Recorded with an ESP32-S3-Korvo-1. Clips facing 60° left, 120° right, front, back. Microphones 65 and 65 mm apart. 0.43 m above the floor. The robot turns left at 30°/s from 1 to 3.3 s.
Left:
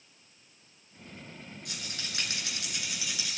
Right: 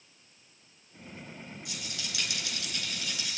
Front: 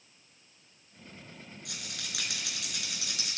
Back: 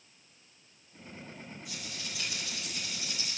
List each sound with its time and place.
1.6 s a rattle: 20° left, 4 m; by 3.4 s 30° right, 4 m